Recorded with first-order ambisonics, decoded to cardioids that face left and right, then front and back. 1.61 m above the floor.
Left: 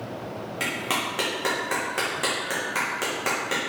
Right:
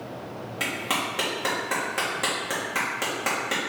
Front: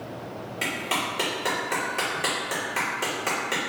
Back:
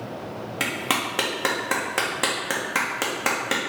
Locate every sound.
0.6 s a clap: straight behind, 1.3 m